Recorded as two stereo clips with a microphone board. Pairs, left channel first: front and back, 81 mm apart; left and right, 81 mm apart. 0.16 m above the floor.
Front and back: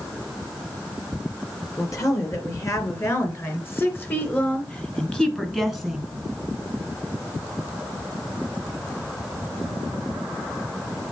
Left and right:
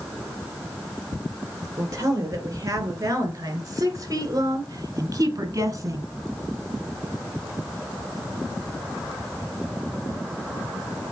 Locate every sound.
1.8 s a woman speaking: 45° right, 3 m; by 6.0 s 95° right, 1.6 m